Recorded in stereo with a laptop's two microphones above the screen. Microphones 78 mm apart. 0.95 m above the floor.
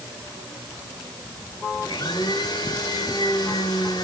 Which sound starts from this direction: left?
A blender, at 1.8 s.